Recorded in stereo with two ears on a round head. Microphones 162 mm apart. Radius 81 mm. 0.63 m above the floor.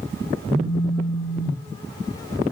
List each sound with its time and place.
0.5 s a phone buzzing: 5° right (ahead or behind), 4 m